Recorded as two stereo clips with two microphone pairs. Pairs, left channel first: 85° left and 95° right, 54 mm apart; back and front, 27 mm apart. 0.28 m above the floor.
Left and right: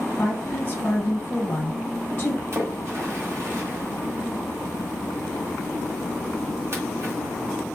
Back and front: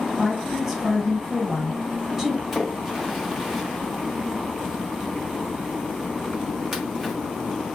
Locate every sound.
0.2 s a woman speaking: 70° left, 1.6 m
2.5 s a splash: 70° right, 2 m